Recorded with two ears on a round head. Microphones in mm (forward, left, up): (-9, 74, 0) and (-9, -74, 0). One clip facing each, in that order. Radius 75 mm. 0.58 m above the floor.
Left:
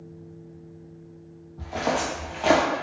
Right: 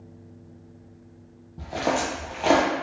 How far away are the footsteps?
About 0.7 m.